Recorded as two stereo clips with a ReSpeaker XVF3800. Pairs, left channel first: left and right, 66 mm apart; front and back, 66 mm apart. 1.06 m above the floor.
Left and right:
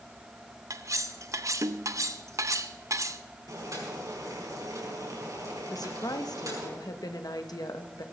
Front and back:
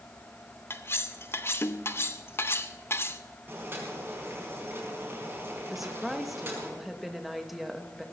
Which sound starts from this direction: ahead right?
Cutlery clinking, at 0.7 s.